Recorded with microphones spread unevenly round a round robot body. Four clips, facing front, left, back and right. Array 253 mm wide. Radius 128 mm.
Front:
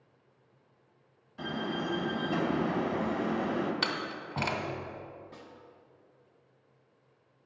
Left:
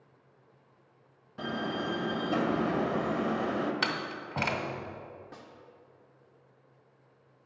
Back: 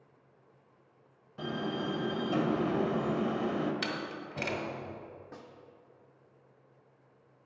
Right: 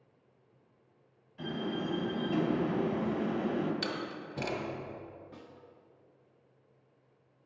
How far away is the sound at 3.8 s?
About 1.8 m.